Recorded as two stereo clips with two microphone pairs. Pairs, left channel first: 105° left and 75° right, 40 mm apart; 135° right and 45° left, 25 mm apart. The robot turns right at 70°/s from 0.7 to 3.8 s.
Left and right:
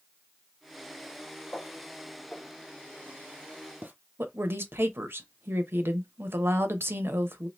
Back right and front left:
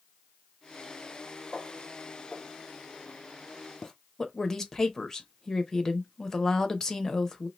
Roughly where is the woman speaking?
Right.